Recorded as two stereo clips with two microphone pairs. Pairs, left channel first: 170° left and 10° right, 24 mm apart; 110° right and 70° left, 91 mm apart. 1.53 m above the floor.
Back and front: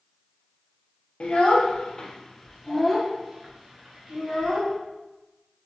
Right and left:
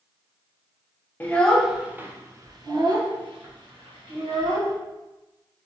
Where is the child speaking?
170° right, 0.6 m; by 4.8 s 75° left, 1.7 m.